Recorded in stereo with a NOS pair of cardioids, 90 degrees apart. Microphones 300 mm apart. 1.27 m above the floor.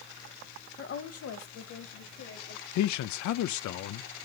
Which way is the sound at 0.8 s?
35° left.